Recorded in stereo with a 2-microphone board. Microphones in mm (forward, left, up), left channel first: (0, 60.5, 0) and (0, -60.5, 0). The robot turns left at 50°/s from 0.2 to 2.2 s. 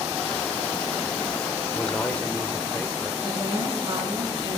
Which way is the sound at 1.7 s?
5° left (ahead or behind).